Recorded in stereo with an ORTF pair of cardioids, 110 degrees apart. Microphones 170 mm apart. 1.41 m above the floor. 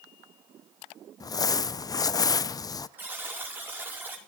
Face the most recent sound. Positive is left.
turn(degrees=-10)